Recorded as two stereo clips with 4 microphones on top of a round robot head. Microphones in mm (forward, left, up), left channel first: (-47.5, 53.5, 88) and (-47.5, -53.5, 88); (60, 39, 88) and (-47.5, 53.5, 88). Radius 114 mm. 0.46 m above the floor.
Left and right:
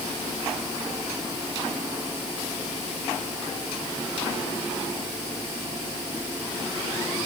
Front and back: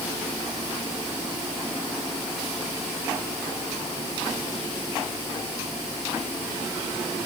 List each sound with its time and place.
Only background noise.